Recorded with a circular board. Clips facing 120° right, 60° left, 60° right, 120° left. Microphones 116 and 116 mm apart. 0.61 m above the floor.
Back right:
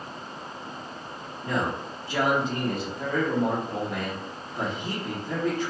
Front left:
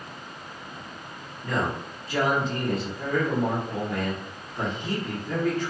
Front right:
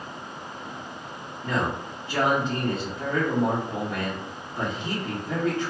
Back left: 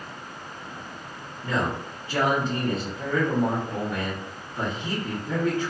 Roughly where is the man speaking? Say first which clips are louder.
Even, even; behind.